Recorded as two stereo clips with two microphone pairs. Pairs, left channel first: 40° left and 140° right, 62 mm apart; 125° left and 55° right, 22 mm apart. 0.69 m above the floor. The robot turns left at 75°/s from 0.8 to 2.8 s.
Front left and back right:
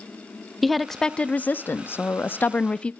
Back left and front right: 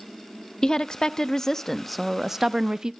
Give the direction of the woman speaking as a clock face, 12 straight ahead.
8 o'clock.